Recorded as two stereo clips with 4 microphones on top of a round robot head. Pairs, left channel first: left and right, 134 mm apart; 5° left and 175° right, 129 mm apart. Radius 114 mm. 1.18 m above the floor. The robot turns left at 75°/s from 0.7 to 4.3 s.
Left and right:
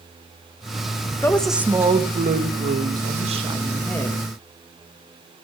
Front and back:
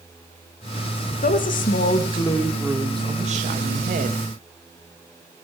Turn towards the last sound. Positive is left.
turn(degrees=150)